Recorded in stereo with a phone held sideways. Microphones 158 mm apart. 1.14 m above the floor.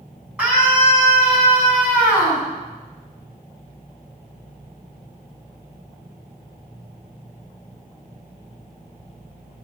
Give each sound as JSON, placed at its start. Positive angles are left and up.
{"t": 0.4, "sound": "a scream", "side_deg": -5, "distance_m": 9.0}